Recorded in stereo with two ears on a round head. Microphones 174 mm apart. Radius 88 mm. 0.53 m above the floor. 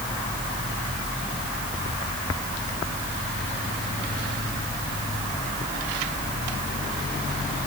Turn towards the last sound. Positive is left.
No sound to turn to.